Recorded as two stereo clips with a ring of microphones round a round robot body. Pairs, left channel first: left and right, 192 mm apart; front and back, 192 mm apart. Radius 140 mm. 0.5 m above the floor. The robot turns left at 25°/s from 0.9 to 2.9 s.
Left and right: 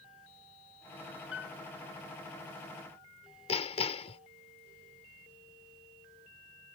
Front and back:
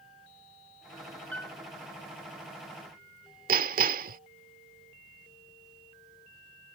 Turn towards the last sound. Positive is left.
turn(degrees=145)